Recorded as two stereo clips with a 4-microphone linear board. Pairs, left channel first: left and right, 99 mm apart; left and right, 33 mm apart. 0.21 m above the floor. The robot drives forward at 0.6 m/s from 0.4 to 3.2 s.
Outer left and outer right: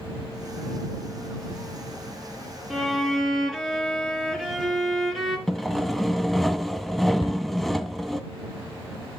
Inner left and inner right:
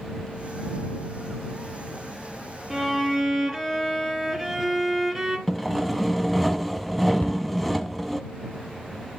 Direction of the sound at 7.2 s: 70° left (ahead or behind).